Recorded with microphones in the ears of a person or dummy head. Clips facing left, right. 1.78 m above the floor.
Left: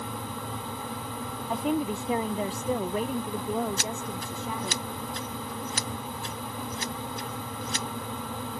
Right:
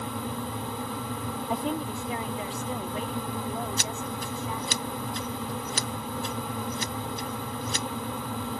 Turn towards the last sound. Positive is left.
turn(degrees=-85)